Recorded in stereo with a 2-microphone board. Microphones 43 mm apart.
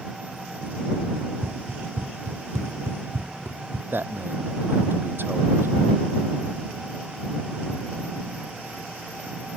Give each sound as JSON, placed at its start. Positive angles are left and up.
{"t": 1.2, "sound": "running footsteps", "side_deg": -60}
{"t": 3.9, "sound": "a man speaking", "side_deg": -55}